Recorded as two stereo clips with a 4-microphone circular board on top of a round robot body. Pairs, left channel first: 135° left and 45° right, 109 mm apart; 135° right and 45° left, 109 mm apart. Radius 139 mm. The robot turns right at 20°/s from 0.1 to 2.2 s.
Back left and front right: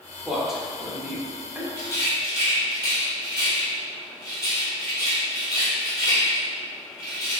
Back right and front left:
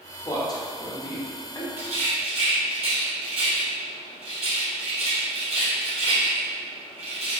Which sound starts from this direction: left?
A rattle, at 1.8 s.